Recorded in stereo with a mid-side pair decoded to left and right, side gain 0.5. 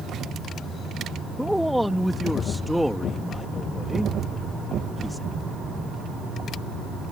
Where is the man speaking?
5° left.